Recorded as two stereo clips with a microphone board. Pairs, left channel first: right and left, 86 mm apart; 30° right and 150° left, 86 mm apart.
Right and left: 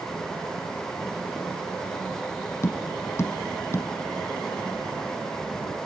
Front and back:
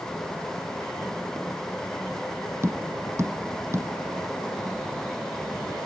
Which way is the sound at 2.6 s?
150° right.